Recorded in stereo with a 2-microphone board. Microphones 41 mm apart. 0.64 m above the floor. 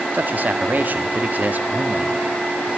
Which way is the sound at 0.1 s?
45° right (ahead or behind).